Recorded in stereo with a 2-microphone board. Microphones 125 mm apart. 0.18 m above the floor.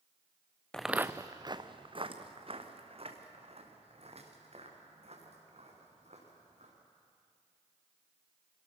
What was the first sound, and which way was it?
Footsteps, 5° left (ahead or behind).